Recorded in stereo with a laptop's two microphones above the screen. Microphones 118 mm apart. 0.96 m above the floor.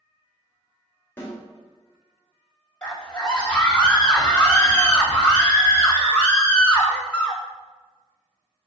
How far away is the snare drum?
About 2.5 m.